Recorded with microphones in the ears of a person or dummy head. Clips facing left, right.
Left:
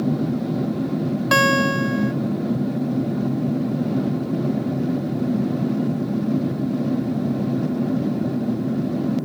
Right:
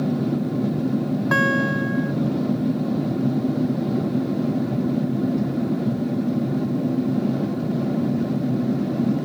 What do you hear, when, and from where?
1.3 s a guitar: 45° left (ahead or behind)